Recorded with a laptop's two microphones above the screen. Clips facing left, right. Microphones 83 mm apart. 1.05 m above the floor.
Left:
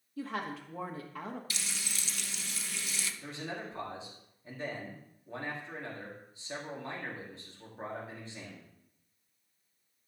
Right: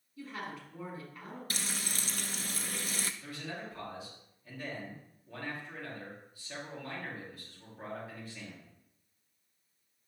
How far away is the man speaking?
About 2 m.